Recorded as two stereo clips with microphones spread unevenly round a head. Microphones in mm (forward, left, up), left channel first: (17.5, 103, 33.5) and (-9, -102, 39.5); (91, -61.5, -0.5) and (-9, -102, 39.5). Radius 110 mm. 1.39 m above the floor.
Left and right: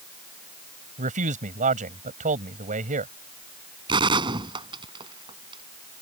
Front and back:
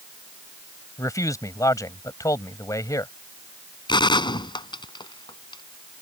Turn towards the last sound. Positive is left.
turn(degrees=-30)